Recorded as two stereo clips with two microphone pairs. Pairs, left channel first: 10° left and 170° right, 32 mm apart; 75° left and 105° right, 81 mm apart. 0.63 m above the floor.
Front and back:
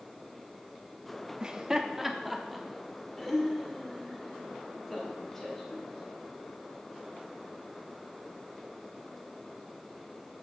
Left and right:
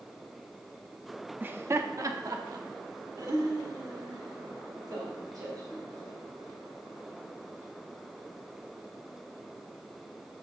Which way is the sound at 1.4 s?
140° right.